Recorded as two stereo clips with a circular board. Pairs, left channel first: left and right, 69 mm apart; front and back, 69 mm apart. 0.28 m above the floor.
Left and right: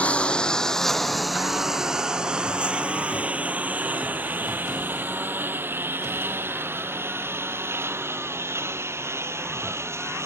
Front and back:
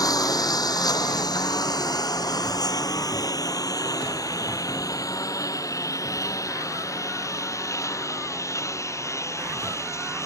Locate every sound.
0.0 s a lawn mower: 20° left; by 10.2 s 40° right